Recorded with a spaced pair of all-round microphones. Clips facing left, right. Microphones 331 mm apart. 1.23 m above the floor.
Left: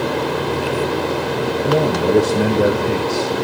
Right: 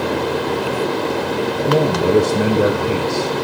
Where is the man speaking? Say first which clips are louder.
Right 1 dB; 5° right (ahead or behind), 0.8 m.